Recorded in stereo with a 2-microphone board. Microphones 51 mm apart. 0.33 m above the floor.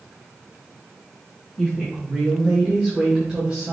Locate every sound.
1.6 s a woman speaking: 5° right (ahead or behind), 2.5 m; by 3.7 s 20° right (ahead or behind), 2.0 m